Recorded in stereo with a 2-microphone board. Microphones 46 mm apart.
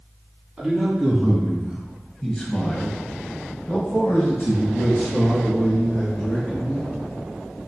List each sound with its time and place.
0.6 s a man speaking: 10° right (ahead or behind), 1.5 m; by 6.9 s 45° left (ahead or behind), 2.5 m